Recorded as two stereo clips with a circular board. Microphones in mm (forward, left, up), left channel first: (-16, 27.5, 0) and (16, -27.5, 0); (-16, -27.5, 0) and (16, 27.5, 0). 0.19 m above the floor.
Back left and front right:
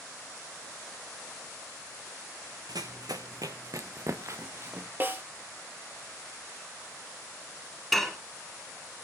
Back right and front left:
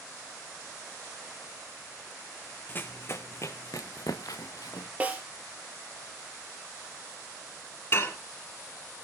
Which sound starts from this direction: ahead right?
Running footsteps, at 2.7 s.